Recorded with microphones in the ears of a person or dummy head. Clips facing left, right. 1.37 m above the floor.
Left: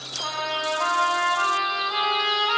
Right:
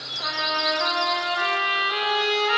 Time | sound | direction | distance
0.2 | a trumpet | 20° right (ahead or behind) | 4.5 m